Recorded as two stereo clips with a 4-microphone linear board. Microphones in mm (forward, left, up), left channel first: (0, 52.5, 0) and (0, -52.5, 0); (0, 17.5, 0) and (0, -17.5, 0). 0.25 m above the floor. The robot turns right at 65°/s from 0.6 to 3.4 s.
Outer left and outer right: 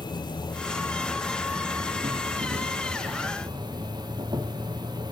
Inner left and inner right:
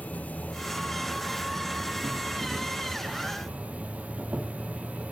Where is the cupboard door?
I don't hear a cupboard door.